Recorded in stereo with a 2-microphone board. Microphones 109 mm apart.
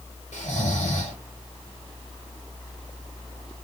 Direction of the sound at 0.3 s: 85° left.